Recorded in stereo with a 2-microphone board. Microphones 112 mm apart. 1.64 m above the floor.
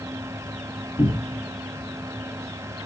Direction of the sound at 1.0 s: 45° left (ahead or behind).